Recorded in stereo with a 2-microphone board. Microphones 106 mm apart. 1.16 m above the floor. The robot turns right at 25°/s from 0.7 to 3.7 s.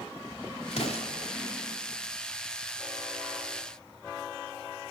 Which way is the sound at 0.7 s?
85° left.